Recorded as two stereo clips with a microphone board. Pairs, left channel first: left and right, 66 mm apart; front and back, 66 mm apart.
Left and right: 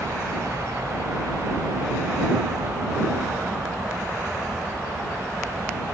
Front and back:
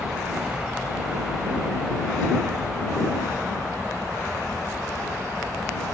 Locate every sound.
0.0 s a helicopter: 105° right; by 6.0 s 80° right